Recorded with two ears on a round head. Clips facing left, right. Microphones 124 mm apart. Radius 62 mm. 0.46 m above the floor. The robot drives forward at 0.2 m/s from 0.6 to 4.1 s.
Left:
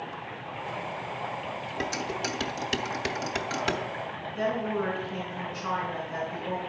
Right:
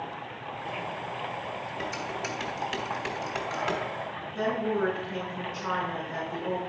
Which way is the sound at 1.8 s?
40° left (ahead or behind).